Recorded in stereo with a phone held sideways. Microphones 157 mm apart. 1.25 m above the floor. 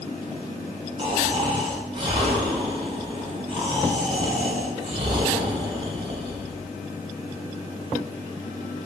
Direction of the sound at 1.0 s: 35° right (ahead or behind).